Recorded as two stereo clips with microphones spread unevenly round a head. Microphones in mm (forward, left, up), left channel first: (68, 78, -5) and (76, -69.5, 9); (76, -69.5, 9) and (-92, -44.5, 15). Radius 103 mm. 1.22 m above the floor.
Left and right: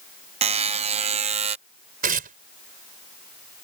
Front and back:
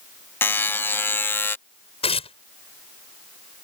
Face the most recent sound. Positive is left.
turn(degrees=-65)